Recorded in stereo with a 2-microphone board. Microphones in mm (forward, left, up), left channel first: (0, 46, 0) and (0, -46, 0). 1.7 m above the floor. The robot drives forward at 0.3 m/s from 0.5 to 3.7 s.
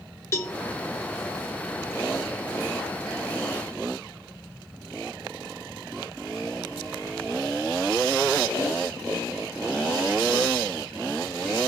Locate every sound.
0.3 s a cowbell: 25° left (ahead or behind), 1.4 m; by 0.6 s 30° left (ahead or behind), 1.4 m